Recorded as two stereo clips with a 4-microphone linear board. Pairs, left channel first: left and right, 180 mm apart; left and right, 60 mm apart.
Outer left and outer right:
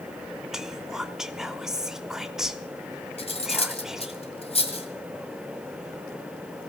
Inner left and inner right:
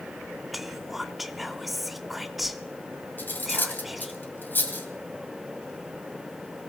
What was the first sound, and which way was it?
Whispering, 5° right (ahead or behind).